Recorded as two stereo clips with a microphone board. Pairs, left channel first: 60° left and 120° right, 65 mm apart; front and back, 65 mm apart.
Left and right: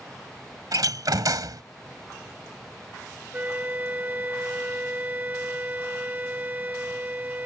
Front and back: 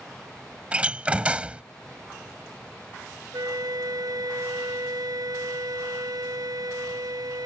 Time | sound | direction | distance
0.7 | a door slam | 110° right | ?
3.3 | a flute | straight behind | ?